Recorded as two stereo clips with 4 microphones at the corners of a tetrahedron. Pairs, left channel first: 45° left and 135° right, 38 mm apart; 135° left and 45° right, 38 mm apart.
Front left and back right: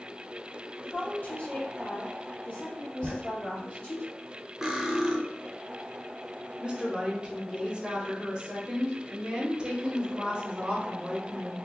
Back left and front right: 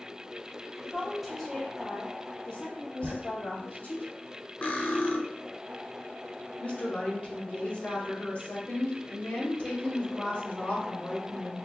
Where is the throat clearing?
I don't hear throat clearing.